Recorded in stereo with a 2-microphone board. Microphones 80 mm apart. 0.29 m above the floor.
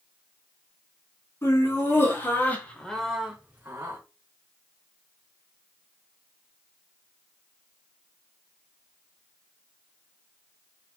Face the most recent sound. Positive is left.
turn(degrees=-35)  # may be behind; listen again after turning